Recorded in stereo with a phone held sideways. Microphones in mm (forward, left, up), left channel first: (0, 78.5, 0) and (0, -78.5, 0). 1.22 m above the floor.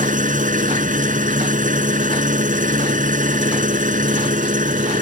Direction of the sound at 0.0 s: 55° right (ahead or behind).